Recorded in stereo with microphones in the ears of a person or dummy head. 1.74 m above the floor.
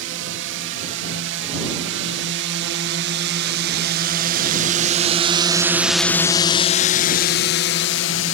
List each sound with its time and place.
0.0 s a drone: 70° right (ahead or behind); by 8.3 s 70° left (ahead or behind)